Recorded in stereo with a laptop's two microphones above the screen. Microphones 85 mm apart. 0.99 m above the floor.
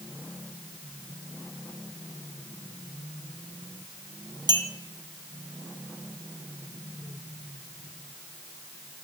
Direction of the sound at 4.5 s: 50° right (ahead or behind).